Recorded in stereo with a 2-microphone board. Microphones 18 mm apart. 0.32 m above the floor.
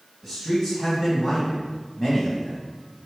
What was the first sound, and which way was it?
A man speaking, 20° left (ahead or behind).